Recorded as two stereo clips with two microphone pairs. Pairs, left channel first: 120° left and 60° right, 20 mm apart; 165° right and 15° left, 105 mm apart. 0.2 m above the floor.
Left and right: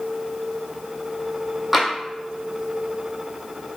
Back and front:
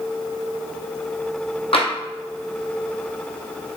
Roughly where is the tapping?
Behind right.